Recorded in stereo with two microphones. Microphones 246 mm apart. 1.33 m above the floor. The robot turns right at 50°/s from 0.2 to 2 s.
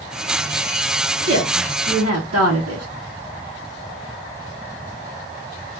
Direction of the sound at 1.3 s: 115° right.